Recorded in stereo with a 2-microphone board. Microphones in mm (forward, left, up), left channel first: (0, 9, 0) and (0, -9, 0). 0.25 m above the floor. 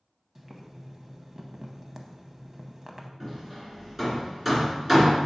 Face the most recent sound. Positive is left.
turn(degrees=-5)  # may be behind; listen again after turning